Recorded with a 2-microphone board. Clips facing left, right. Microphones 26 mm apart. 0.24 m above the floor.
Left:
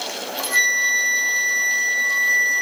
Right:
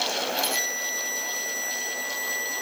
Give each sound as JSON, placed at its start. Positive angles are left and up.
{"t": 0.1, "sound": "a flute", "side_deg": 60}